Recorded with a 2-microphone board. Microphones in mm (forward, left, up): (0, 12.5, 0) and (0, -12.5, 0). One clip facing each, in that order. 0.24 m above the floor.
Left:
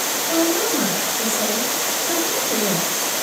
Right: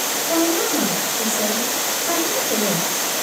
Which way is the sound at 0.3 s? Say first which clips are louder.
Even; 20° right (ahead or behind).